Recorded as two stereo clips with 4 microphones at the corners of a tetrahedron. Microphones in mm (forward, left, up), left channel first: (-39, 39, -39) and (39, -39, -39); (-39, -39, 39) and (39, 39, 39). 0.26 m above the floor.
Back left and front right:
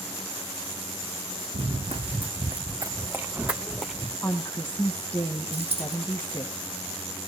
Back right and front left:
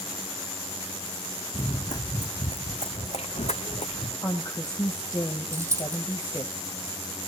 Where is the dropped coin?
20° right, 4.5 m.